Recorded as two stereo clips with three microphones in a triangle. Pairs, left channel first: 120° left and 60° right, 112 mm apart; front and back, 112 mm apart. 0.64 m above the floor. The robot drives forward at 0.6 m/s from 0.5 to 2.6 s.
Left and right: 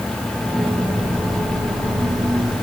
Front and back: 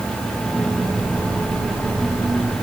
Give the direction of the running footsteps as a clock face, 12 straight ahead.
I don't hear running footsteps.